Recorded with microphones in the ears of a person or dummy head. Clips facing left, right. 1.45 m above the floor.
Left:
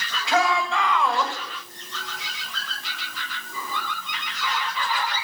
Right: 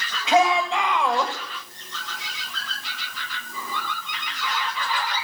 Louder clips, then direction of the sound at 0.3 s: Right 3 dB; 20° right (ahead or behind).